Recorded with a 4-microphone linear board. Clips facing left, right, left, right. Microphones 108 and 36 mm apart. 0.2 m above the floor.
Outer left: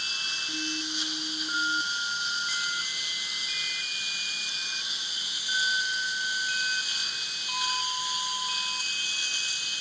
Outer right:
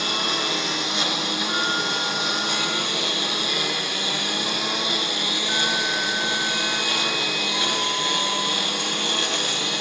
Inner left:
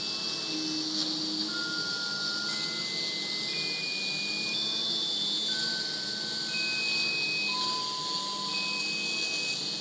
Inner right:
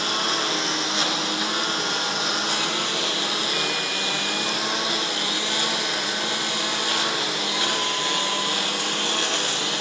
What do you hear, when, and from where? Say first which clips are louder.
0.0 s a lawn mower: outer right 15 dB, inner right 13 dB; 90° right